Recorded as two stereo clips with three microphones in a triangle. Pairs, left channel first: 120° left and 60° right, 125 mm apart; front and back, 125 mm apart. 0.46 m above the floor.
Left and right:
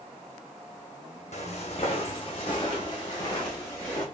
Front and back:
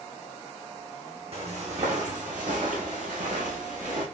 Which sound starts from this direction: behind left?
Footsteps, at 1.3 s.